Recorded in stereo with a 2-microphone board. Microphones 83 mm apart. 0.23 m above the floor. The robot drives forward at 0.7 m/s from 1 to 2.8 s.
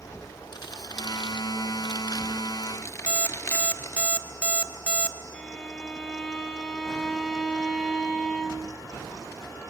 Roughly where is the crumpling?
Left.